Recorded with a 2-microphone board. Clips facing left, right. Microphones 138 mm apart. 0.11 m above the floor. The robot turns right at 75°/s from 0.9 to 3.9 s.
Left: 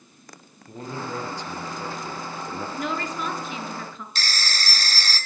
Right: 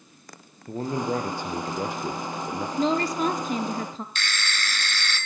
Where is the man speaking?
135° right, 2.5 m; by 2.7 s 5° right, 2.5 m.